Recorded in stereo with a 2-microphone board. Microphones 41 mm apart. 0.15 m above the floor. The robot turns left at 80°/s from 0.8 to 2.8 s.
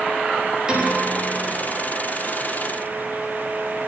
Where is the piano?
160° right, 8.5 m; by 1.5 s 145° left, 8.5 m.